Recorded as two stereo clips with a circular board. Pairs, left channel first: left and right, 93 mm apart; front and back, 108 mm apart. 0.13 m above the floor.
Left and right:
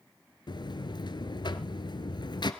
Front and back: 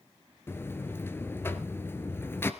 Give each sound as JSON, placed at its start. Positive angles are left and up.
{"t": 0.5, "sound": "a buzzer", "azimuth_deg": 65, "distance_m": 1.5}